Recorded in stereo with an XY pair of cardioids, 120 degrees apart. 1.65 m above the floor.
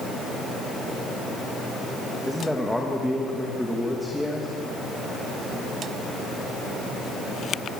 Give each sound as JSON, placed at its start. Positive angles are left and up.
{"t": 2.3, "sound": "a man speaking", "azimuth_deg": 5, "distance_m": 2.5}